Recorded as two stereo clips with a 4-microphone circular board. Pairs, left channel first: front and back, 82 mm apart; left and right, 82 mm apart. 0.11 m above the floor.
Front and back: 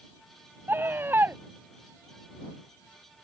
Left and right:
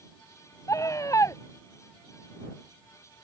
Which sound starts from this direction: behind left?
A scream, at 0.7 s.